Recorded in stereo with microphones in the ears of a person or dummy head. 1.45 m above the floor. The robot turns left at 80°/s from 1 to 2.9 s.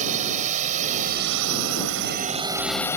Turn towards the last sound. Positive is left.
turn(degrees=10)  # may be behind; listen again after turning